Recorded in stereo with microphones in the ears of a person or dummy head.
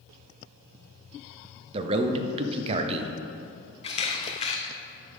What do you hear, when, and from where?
1.7 s a man speaking: 30° right (ahead or behind), 0.6 m
3.8 s a camera shutter: 30° left (ahead or behind), 0.7 m